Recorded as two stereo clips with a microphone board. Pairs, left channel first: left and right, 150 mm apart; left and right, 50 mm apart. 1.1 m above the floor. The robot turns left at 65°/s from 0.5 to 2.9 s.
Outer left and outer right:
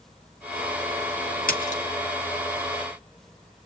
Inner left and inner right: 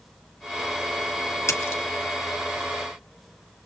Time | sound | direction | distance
1.5 | a splash | 70° left (ahead or behind) | 3 m